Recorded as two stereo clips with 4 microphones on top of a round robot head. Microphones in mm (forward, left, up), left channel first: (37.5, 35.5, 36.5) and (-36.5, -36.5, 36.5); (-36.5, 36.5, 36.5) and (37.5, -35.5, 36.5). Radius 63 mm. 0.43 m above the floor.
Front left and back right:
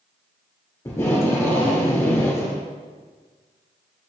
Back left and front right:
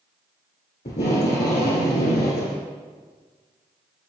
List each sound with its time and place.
0.8 s tape being pulled: 115° left, 3.5 m